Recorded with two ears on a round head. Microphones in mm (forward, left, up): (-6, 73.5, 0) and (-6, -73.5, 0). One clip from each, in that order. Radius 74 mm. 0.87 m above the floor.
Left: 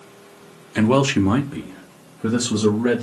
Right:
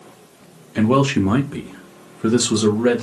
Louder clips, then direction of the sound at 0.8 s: Even; 25° left (ahead or behind).